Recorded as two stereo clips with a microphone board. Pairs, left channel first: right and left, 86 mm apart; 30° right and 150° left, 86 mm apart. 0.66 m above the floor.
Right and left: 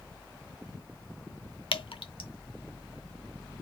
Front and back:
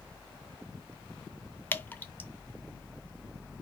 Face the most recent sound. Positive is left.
turn(degrees=-100)